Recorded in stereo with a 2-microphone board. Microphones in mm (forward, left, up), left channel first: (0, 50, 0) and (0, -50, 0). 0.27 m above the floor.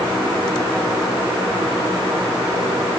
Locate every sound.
Only background noise.